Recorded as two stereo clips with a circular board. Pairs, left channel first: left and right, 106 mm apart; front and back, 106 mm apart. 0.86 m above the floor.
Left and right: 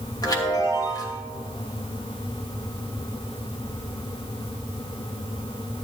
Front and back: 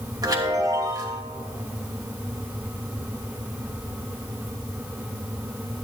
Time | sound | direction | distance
0.2 | a chime | 135° left | 1.9 m